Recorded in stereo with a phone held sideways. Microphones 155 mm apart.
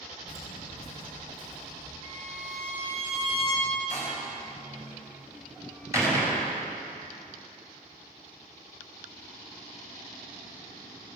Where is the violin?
55° right (ahead or behind), 3.5 m.